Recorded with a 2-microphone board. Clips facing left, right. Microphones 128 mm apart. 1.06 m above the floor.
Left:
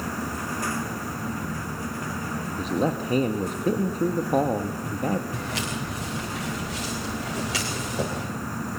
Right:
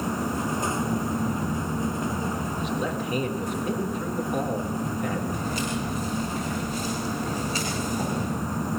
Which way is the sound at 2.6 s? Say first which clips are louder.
Left 7 dB; 35° left (ahead or behind).